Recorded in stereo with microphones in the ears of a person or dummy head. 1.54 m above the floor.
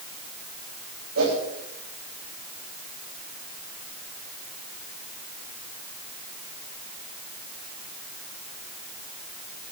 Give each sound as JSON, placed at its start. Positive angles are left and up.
{"t": 1.1, "sound": "a whoosh", "side_deg": -85, "distance_m": 9.5}